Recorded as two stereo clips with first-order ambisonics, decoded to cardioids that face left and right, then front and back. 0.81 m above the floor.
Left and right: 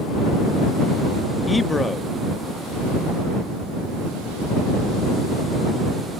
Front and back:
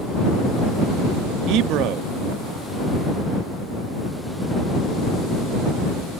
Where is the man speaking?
165° left.